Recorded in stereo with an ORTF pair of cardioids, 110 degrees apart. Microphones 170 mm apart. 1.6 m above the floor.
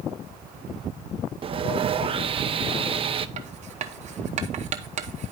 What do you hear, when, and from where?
1.4 s sawing: 35° right, 0.5 m
3.4 s writing: 45° right, 0.9 m